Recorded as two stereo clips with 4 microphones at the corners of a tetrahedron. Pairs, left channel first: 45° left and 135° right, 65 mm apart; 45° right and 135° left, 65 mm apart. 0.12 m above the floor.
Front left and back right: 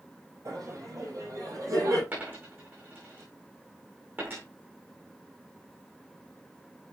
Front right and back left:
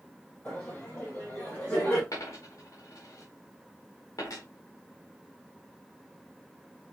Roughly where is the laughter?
Right.